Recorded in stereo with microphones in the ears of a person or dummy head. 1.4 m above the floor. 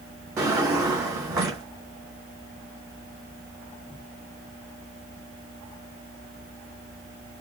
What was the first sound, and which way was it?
A drawer, 15° right (ahead or behind).